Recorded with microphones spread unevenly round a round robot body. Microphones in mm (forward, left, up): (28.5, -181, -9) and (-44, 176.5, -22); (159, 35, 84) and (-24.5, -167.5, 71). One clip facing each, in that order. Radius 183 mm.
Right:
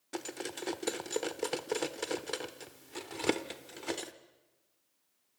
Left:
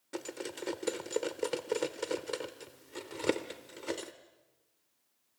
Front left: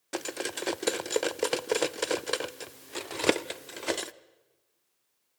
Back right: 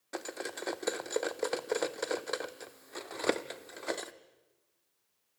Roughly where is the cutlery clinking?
Ahead.